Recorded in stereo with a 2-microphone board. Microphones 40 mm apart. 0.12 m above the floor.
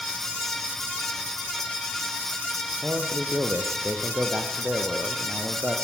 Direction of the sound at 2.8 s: 50° right (ahead or behind).